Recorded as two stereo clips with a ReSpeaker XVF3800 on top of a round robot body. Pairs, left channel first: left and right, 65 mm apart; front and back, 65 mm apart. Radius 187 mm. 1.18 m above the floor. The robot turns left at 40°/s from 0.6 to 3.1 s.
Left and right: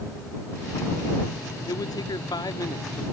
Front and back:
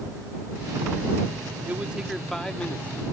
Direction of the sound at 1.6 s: 115° left.